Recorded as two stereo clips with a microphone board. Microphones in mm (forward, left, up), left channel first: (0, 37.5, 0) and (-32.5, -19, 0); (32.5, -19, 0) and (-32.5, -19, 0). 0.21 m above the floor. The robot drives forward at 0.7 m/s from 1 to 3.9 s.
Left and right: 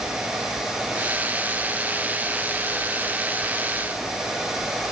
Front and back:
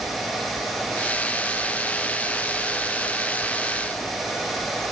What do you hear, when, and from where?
Only background noise.